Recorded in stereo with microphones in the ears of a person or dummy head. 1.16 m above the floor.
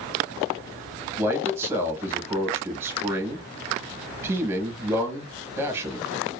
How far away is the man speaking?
About 0.8 m.